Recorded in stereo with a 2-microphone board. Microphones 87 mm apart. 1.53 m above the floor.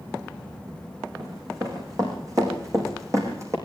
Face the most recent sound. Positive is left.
turn(degrees=-35)  # may be behind; listen again after turning